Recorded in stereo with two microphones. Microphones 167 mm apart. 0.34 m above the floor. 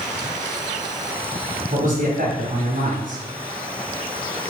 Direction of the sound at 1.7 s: 55° right (ahead or behind).